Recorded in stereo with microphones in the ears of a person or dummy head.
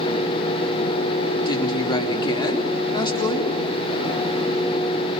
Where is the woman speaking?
25° left (ahead or behind), 3.5 m.